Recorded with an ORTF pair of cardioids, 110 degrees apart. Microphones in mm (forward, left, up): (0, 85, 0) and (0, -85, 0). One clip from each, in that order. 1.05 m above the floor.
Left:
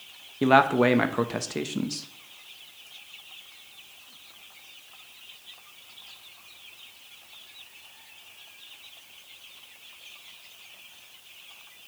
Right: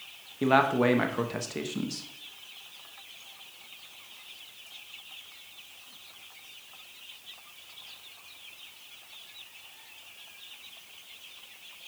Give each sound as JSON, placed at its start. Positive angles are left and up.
{"t": 0.4, "sound": "a man speaking", "azimuth_deg": 20, "distance_m": 0.8}